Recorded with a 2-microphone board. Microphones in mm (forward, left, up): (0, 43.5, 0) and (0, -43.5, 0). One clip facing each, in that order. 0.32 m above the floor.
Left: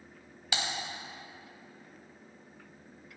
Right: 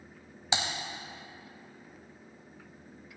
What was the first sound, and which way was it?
Typing on a keyboard, 25° right (ahead or behind).